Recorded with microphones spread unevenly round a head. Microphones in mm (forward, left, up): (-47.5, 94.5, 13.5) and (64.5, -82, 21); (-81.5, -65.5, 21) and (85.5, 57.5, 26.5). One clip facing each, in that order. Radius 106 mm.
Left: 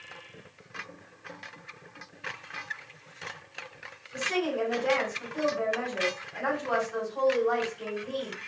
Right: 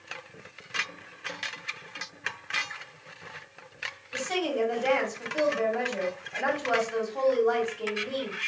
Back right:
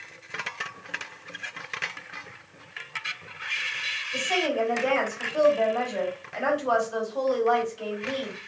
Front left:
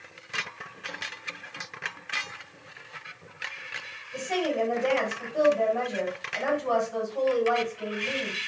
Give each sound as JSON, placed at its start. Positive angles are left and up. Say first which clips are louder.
{"t": 4.1, "sound": "a woman speaking", "louder": "right 1 dB, back right 1 dB", "azimuth_deg": -75, "distance_m": 2.5}